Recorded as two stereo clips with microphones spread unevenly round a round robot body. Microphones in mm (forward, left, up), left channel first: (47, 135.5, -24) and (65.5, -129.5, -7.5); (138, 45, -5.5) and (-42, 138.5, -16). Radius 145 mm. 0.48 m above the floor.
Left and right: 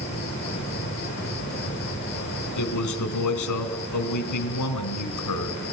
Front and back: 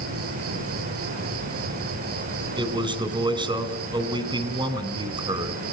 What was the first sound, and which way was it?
An insect, 165° left.